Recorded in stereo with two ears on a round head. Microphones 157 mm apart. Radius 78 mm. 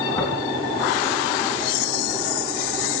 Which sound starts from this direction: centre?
Tapping, at 0.2 s.